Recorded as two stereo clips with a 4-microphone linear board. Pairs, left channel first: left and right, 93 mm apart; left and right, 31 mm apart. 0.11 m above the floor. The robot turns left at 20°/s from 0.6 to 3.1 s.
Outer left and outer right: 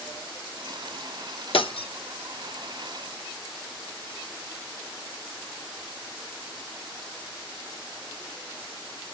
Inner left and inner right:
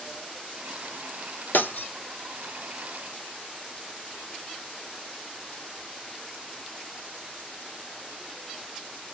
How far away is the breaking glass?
About 0.8 m.